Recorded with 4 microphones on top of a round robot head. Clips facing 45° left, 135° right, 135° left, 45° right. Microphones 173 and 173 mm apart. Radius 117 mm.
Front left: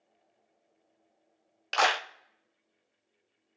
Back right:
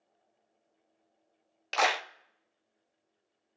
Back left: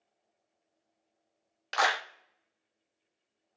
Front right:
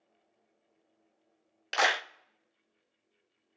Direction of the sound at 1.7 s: 60° right.